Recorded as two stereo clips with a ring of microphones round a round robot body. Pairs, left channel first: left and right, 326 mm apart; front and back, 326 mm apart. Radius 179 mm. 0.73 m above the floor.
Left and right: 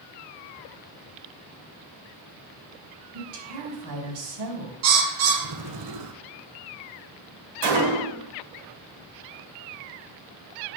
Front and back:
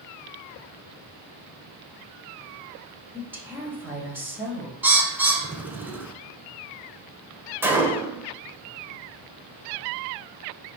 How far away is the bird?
About 1.4 m.